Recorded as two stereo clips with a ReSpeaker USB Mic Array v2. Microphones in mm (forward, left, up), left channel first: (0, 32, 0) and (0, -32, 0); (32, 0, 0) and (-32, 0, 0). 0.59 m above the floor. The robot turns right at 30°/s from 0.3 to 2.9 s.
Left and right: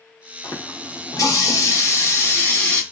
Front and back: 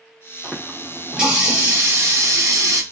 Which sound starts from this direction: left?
A running tap, at 0.4 s.